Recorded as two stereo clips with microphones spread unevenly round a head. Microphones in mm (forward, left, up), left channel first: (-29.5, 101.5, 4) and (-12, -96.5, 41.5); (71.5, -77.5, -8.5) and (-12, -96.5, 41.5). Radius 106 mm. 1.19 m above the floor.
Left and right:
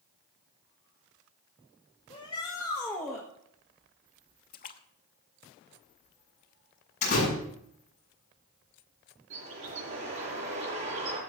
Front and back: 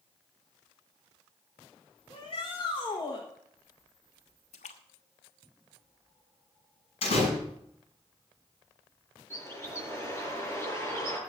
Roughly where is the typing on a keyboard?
No typing on a keyboard in this recording.